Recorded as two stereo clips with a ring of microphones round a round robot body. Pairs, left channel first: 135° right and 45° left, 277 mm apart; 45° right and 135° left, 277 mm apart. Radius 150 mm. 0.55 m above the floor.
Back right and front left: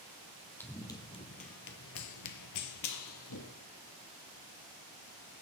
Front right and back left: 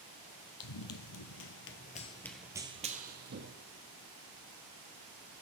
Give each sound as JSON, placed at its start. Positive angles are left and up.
{"t": 0.6, "sound": "running footsteps", "azimuth_deg": -50, "distance_m": 1.3}